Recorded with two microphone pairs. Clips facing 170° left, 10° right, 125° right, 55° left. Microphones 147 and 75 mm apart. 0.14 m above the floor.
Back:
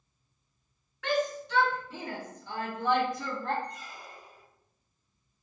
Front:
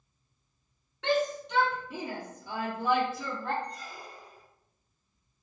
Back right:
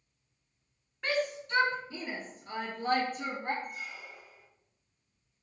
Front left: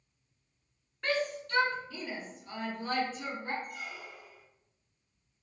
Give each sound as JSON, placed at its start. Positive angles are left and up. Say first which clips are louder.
{"t": 1.0, "sound": "a shout", "louder": "front 1 dB, even", "azimuth_deg": -40, "distance_m": 1.2}
{"t": 3.6, "sound": "a squeak", "louder": "front 1 dB, even", "azimuth_deg": 45, "distance_m": 1.0}